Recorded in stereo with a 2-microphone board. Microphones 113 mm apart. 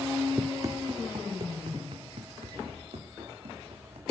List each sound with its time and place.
0.4 s running footsteps: 20° right (ahead or behind), 0.9 m; by 4.0 s 70° right (ahead or behind), 4.5 m